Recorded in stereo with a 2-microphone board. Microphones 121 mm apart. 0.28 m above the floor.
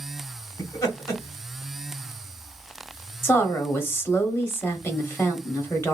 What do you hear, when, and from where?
0.6 s laughter: 25° left (ahead or behind), 1.5 m
3.2 s a woman speaking: 20° left (ahead or behind), 1.0 m